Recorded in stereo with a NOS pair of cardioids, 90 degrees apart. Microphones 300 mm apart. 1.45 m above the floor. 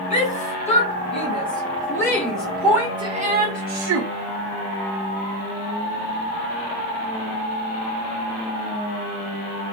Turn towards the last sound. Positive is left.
turn(degrees=-70)